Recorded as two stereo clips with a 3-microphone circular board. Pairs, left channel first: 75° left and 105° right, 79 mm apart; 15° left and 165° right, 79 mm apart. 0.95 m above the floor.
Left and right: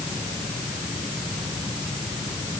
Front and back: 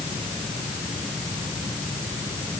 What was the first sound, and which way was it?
Only background noise.